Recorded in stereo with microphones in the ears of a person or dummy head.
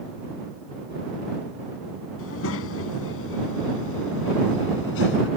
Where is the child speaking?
85° left; by 5.3 s 70° left (ahead or behind).